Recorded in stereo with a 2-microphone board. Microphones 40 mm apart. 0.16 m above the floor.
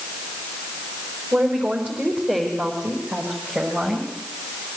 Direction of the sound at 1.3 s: 45° right (ahead or behind).